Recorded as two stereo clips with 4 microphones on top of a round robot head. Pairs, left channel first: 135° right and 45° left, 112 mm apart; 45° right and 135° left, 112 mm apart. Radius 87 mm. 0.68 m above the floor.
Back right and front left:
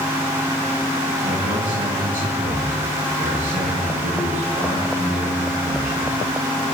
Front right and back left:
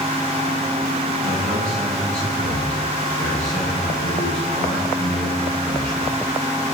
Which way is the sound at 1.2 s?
40° left.